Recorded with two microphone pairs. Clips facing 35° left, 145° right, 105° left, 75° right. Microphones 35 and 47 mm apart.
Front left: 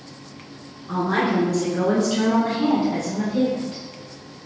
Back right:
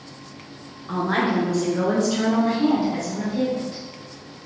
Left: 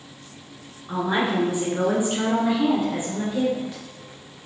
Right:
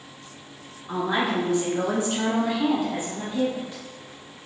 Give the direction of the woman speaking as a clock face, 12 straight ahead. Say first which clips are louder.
Front left 1 dB, left 1 dB; 6 o'clock.